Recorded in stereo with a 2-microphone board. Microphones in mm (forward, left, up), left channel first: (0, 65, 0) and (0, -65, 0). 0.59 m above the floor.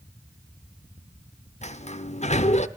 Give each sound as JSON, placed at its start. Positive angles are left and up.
{"t": 1.6, "sound": "a sliding door", "side_deg": 55, "distance_m": 0.9}